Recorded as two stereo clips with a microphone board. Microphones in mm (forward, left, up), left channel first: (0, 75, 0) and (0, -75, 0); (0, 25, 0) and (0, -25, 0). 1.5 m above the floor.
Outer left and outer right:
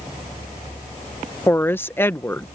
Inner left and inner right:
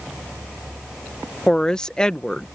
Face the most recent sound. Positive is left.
turn(degrees=15)  # may be behind; listen again after turning